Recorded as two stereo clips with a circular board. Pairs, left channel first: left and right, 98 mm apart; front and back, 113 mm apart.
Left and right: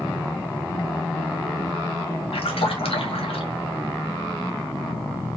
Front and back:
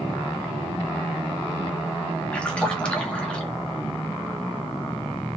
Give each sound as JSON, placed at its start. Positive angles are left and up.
{"t": 2.3, "sound": "a splash", "azimuth_deg": 80, "distance_m": 2.5}